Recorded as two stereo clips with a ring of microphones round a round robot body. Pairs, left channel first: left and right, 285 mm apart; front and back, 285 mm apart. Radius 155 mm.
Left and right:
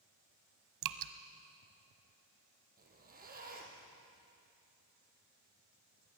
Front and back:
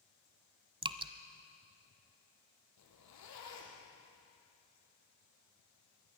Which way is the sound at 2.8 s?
30° right.